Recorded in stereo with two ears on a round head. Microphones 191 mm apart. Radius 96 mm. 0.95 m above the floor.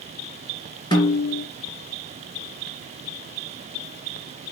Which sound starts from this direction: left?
A snare drum, at 0.9 s.